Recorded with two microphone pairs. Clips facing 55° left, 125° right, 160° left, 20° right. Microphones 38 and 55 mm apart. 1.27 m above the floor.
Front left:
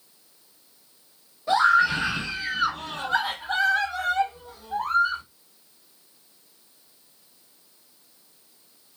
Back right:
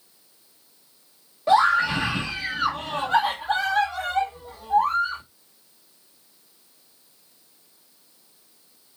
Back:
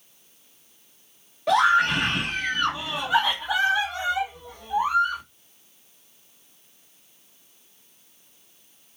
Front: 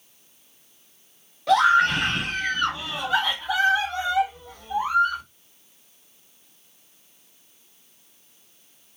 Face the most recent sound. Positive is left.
turn(degrees=-125)